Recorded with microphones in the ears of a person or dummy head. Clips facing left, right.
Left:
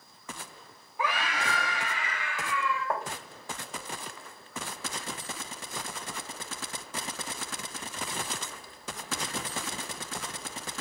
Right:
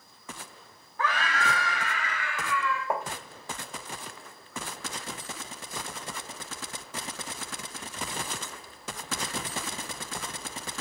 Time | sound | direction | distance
1.0 | a scream | 15° left (ahead or behind) | 1.5 m
2.9 | tapping | 15° right (ahead or behind) | 1.2 m